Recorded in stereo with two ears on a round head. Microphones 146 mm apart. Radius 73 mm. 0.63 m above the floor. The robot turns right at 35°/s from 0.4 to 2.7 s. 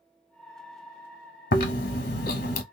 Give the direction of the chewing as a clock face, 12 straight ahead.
9 o'clock.